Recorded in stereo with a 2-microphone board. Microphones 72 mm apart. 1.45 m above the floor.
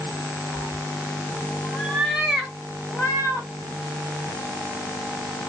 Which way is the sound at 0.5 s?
45° left (ahead or behind).